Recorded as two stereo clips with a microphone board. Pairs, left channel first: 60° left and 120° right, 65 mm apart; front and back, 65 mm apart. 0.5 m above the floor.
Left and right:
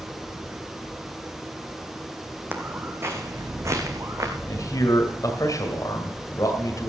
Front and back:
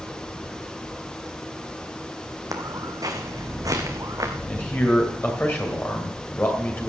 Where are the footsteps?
175° right, 1.4 m; by 4.4 s 155° right, 2 m.